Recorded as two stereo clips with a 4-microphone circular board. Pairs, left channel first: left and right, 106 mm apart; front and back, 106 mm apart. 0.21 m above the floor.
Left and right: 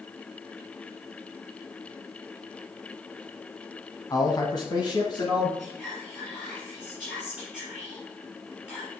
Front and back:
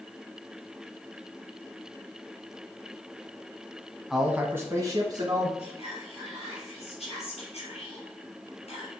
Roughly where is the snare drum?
I don't hear a snare drum.